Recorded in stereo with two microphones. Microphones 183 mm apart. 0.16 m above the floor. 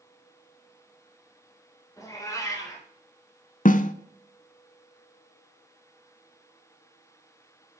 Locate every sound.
2.0 s a cat meowing: 15° left (ahead or behind), 4 m
3.6 s a snare drum: 45° left (ahead or behind), 0.6 m